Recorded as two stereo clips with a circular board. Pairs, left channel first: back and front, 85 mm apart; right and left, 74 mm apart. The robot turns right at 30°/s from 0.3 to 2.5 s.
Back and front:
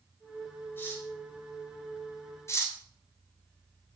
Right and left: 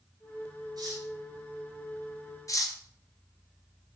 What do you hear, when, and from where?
0.8 s cutlery clinking: 115° left, 2.5 m; by 1.1 s 125° left, 2.5 m
2.5 s cutlery clinking: 125° right, 1.0 m